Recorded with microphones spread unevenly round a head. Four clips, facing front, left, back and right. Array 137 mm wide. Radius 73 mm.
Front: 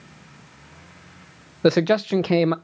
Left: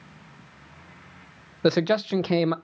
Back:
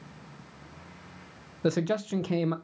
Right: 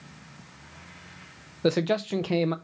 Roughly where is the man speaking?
Ahead.